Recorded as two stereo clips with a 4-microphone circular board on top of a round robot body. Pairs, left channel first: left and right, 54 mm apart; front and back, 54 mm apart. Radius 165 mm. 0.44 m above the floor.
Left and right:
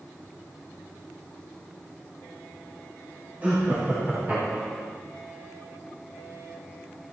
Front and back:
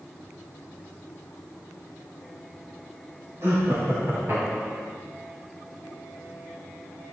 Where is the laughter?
145° right, 6.5 m.